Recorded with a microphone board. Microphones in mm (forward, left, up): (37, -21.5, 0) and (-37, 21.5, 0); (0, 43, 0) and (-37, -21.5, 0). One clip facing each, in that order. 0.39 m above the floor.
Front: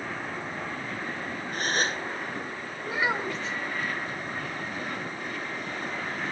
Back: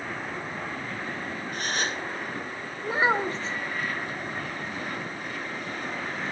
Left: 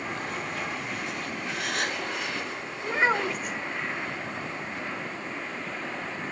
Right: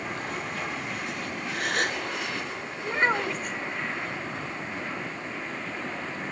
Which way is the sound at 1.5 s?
80° right.